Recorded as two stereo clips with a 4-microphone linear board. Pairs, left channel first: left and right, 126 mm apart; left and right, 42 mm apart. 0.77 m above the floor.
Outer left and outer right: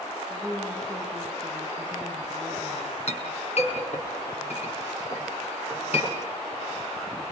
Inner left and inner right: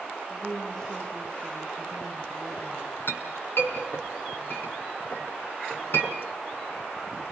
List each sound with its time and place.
0.3 s a woman speaking: 10° left (ahead or behind), 8 m
3.1 s a clink: 60° left (ahead or behind), 6.5 m